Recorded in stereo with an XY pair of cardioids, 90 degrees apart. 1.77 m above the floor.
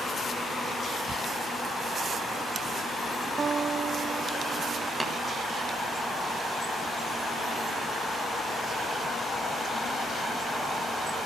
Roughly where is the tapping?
Ahead right.